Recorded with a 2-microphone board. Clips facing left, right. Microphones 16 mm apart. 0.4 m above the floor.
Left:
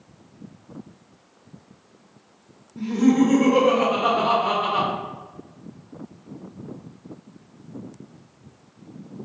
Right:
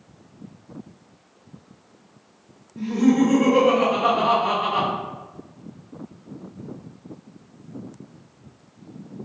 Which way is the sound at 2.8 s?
15° left (ahead or behind).